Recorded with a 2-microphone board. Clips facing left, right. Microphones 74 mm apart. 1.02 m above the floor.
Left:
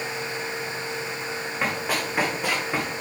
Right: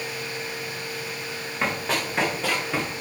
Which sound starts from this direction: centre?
Running footsteps, at 1.6 s.